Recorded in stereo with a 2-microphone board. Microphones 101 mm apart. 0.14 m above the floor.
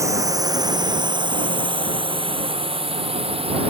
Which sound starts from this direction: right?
A drone, at 0.0 s.